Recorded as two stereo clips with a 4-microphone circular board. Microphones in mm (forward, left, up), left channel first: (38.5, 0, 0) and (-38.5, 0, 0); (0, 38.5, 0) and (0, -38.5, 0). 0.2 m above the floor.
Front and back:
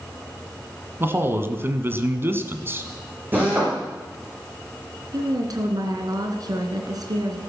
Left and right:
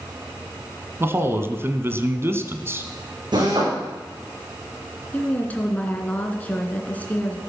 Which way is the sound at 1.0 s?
135° right.